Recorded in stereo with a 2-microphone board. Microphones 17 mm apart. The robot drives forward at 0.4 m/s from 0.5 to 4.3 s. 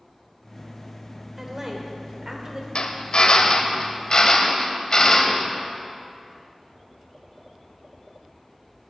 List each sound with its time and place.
1.4 s a woman speaking: 30° right (ahead or behind), 2 m; by 2.6 s 35° right (ahead or behind), 1.8 m
2.8 s a drill: 70° left (ahead or behind), 1.0 m; by 5.5 s 50° left (ahead or behind), 1.3 m